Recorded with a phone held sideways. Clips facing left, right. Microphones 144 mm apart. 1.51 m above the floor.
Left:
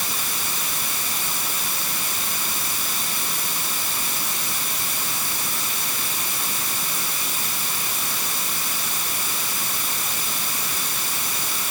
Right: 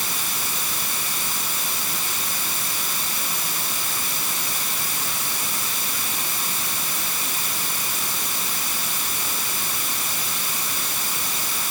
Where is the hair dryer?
I don't hear a hair dryer.